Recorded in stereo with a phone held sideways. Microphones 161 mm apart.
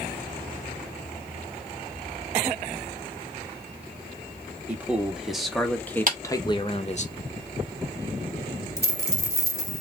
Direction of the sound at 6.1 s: 55° right (ahead or behind).